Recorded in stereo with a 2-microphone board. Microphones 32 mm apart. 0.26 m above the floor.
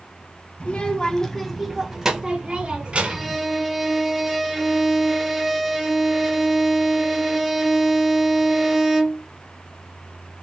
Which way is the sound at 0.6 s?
35° left (ahead or behind).